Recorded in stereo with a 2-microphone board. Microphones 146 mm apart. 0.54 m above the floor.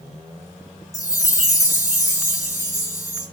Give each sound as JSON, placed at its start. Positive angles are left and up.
{"t": 0.9, "sound": "a chime", "side_deg": 25, "distance_m": 2.5}